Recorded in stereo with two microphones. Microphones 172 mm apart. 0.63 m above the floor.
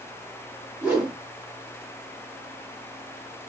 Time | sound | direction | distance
0.8 | a whoosh | 10° right (ahead or behind) | 1.6 m